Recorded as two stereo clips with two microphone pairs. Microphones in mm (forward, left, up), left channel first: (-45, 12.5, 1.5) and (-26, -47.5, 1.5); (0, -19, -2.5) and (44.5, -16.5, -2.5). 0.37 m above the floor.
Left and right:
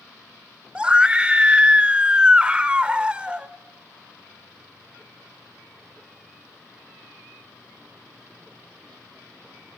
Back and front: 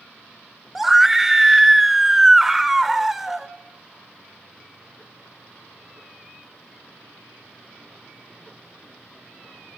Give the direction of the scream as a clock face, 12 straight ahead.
2 o'clock.